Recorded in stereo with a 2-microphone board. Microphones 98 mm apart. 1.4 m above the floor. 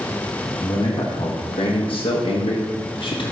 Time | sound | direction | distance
0.6 | a man speaking | 50° left (ahead or behind) | 1.7 m